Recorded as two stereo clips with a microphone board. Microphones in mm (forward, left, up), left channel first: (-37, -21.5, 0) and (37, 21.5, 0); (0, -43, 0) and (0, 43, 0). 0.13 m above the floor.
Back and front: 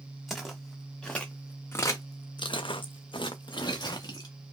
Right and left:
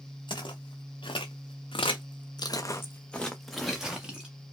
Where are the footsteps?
60° right, 1.4 m; by 4.3 s 170° left, 1.3 m.